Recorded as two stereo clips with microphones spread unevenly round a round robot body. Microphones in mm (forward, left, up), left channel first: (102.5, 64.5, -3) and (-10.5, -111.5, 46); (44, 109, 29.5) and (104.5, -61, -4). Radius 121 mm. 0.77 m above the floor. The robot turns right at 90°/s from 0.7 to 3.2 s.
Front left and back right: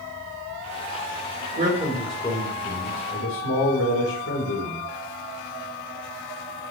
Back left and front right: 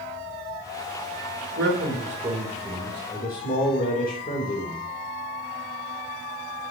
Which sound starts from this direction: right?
A man speaking, at 1.5 s.